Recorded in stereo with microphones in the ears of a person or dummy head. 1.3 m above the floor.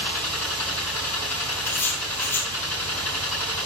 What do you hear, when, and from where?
0.0 s a machine running: 5° left (ahead or behind), 5 m
1.6 s writing: 10° left (ahead or behind), 1.6 m